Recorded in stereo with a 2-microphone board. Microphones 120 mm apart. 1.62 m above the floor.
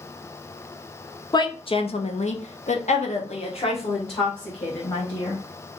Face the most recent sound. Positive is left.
turn(degrees=40)  # may be behind; listen again after turning